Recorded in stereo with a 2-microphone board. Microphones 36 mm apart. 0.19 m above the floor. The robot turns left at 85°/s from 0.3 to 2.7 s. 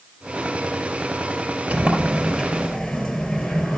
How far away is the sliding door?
About 3.5 m.